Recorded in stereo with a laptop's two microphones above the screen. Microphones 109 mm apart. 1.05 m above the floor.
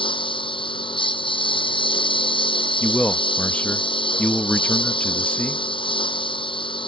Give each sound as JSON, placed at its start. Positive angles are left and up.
{"t": 0.0, "sound": "a lawn mower", "side_deg": 45}
{"t": 2.8, "sound": "a man speaking", "side_deg": 10}